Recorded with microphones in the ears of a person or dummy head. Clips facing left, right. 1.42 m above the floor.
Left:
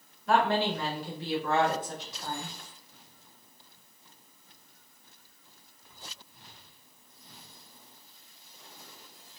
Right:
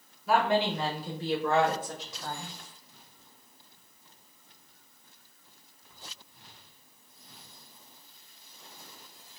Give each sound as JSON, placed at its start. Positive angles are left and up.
{"t": 0.3, "sound": "a woman speaking", "side_deg": -5, "distance_m": 1.0}